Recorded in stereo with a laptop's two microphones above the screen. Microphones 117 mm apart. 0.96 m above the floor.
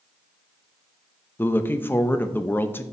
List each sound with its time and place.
1.4 s a woman speaking: 15° left (ahead or behind), 0.7 m